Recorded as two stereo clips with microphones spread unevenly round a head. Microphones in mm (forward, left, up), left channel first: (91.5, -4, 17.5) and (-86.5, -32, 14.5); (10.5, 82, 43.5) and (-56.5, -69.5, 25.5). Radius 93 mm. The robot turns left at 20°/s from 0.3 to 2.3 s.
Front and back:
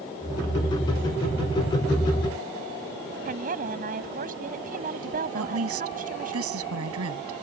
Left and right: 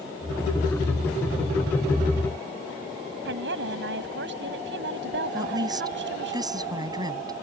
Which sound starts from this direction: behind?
A woman speaking, at 5.3 s.